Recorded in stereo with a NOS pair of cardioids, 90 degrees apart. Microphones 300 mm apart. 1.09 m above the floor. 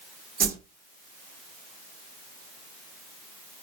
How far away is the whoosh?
About 0.6 m.